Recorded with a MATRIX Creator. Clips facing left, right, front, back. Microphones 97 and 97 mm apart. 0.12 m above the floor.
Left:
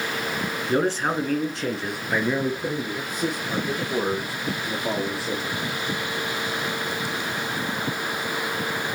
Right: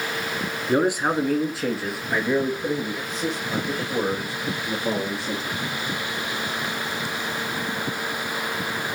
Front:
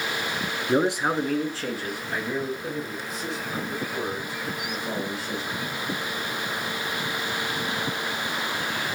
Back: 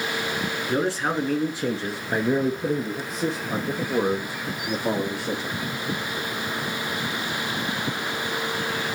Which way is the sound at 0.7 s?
30° right.